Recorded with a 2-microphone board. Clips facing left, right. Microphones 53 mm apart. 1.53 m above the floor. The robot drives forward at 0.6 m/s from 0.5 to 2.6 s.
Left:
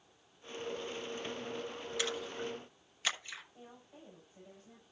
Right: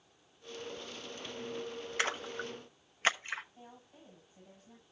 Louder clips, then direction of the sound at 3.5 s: Even; 35° left (ahead or behind).